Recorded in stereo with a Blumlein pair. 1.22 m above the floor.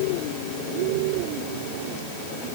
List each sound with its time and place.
Only background noise.